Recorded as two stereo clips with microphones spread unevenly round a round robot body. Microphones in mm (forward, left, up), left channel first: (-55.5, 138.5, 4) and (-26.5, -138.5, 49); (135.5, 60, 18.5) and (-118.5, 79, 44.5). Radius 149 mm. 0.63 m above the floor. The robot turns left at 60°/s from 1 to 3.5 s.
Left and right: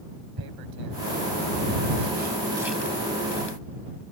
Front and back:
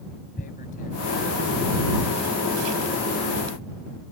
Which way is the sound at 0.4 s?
70° right.